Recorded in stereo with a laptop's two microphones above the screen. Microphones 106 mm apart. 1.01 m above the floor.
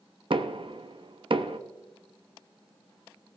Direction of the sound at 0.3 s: 60° right (ahead or behind).